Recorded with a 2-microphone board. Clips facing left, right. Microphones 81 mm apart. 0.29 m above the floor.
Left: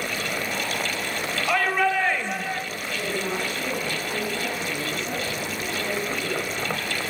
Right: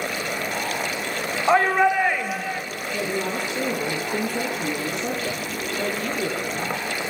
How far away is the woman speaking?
About 8.5 m.